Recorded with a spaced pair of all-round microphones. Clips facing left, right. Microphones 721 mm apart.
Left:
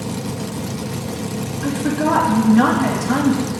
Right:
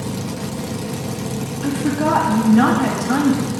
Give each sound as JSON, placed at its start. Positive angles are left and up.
{"t": 1.6, "sound": "a woman speaking", "side_deg": 5, "distance_m": 2.5}